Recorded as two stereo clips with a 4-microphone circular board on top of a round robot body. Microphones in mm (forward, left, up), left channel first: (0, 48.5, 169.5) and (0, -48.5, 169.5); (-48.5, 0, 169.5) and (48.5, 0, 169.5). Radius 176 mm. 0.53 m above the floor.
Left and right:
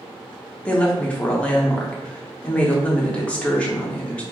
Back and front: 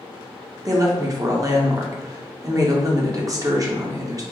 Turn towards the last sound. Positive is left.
turn(degrees=20)